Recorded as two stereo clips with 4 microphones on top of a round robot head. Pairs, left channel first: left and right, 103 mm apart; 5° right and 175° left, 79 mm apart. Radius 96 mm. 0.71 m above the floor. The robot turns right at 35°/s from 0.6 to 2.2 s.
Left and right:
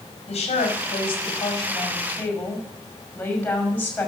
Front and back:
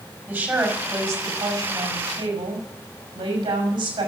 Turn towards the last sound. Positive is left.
turn(degrees=170)